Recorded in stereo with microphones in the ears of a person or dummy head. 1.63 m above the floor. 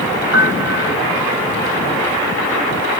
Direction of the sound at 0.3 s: 60° right (ahead or behind).